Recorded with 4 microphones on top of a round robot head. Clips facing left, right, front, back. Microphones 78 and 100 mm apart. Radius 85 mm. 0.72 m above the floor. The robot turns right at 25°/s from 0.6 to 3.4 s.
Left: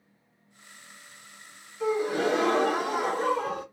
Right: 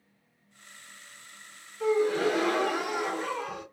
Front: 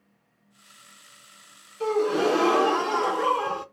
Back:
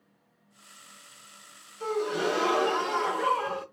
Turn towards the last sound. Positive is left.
turn(degrees=55)